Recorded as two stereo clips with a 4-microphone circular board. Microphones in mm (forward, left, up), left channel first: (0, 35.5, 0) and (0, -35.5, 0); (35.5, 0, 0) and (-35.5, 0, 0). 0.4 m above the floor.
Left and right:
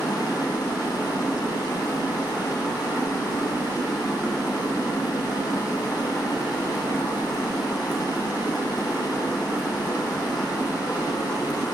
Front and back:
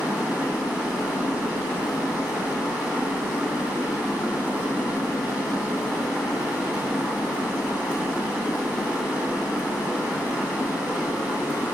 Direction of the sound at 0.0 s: 105° left.